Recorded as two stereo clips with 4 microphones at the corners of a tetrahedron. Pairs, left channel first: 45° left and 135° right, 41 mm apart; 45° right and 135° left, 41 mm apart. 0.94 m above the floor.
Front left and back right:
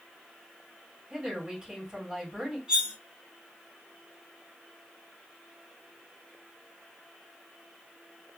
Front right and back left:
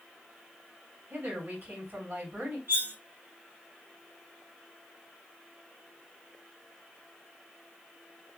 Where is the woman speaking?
155° left, 2 m.